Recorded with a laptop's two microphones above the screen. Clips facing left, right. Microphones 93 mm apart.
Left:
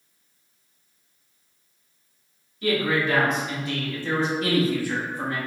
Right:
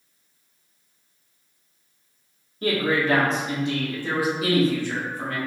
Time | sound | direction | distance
2.6 | a man speaking | 45° right (ahead or behind) | 1.5 m